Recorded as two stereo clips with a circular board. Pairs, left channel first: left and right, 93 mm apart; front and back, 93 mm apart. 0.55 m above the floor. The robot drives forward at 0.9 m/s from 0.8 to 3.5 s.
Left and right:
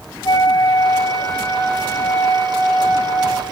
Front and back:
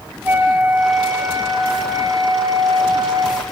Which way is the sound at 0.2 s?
120° left.